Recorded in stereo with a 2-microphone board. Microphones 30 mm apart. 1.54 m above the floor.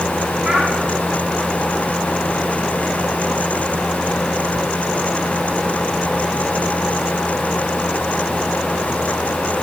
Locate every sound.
0.4 s a child speaking: 20° right (ahead or behind), 3.5 m